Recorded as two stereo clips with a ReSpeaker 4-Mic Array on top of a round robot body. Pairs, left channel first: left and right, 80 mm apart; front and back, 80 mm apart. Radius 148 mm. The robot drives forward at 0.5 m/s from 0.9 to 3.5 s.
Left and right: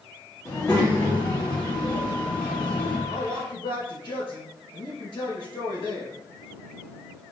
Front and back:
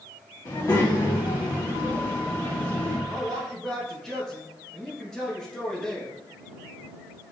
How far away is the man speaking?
About 2 m.